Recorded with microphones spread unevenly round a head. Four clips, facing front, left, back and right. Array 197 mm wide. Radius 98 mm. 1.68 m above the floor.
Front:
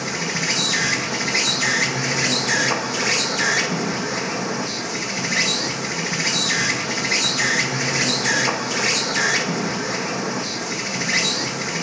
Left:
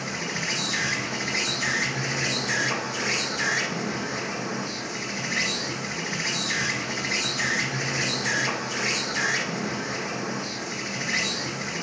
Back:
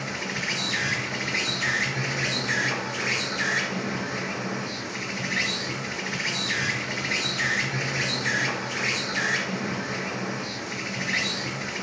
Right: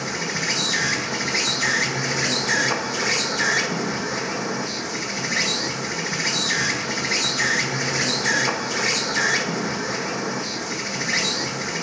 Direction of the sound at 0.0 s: 40° right.